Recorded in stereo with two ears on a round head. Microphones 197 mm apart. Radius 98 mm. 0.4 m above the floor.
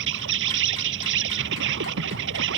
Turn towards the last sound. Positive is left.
turn(degrees=-60)  # may be behind; listen again after turning